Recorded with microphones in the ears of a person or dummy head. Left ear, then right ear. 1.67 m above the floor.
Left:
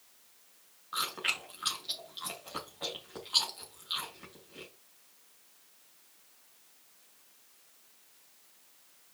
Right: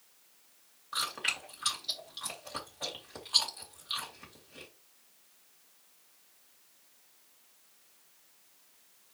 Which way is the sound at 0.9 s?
15° right (ahead or behind).